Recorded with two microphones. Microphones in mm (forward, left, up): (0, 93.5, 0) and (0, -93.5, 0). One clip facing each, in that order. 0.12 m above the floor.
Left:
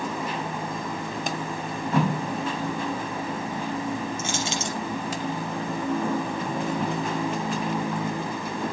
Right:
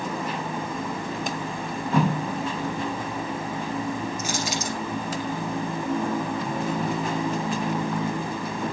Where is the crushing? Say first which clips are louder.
Even; 25° left (ahead or behind), 4 m.